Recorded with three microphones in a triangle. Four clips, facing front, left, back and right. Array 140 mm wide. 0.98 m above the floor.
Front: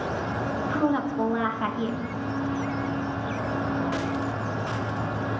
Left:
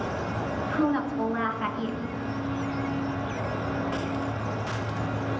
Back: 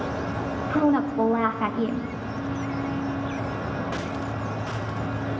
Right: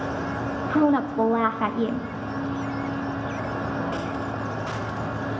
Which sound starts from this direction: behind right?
A woman speaking, at 0.7 s.